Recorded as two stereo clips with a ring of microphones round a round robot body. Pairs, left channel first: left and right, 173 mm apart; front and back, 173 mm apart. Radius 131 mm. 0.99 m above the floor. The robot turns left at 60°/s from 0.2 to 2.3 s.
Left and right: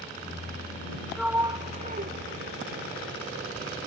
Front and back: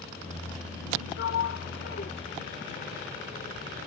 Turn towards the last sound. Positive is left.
turn(degrees=-70)